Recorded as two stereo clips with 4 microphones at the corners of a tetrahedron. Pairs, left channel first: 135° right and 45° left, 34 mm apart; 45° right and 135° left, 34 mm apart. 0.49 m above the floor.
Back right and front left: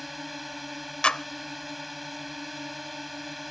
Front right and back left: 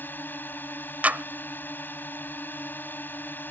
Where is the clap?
170° left.